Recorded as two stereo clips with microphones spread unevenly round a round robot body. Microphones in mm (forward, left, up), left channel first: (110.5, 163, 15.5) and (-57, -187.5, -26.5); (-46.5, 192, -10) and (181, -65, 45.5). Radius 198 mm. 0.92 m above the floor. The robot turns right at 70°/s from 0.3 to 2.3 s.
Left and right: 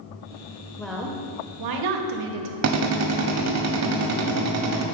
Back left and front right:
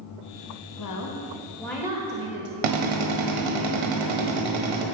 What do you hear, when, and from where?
0.8 s a woman speaking: 150° left, 1.1 m; by 2.5 s 105° right, 1.1 m
2.6 s a drill: 65° right, 1.4 m